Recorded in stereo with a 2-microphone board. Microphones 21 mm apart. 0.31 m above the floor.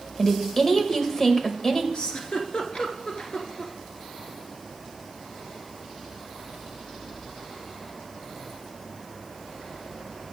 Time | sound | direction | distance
0.2 | a woman speaking | 25° left (ahead or behind) | 0.9 m
1.9 | a giggle | 45° left (ahead or behind) | 1.0 m